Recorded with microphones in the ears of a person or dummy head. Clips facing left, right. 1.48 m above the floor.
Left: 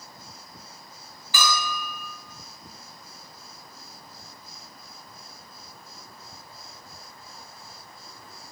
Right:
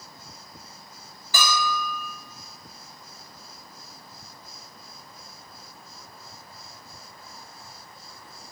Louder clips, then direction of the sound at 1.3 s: Right 2 dB; 35° right (ahead or behind).